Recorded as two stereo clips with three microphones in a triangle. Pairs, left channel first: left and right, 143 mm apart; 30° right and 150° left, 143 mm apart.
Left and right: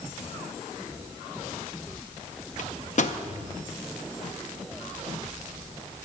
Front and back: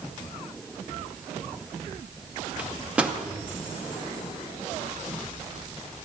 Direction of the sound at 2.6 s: 70° left.